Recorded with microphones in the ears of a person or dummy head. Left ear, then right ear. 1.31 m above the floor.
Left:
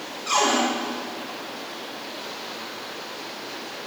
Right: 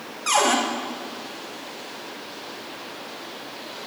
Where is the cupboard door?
35° right (ahead or behind), 2.5 m.